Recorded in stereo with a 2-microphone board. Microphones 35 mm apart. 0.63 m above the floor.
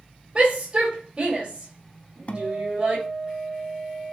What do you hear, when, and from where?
0.3 s a shout: 25° right (ahead or behind), 3 m
2.3 s a guitar: 40° left (ahead or behind), 0.9 m